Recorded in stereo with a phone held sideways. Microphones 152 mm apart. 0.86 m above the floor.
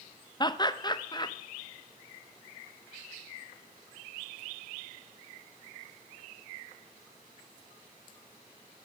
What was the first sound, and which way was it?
Laughter, 30° left (ahead or behind).